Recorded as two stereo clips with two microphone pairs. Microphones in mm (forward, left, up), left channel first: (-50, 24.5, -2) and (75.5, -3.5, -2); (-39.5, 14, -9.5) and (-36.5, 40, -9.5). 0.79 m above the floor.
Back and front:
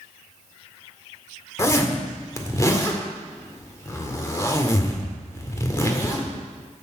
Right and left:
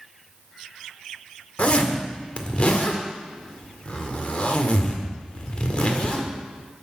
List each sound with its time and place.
1.6 s a zipper: 125° right, 1.8 m